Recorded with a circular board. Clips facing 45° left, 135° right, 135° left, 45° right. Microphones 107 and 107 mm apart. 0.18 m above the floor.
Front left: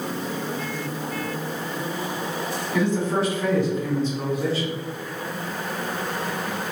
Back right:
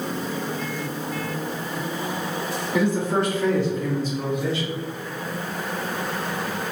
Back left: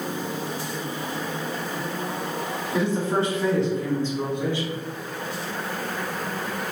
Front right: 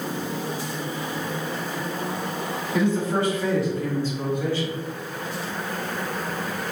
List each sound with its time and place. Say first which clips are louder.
2.7 s a man speaking: back right 1 dB, front right 1 dB; 155° left, 1.4 m; by 4.8 s 65° left, 1.7 m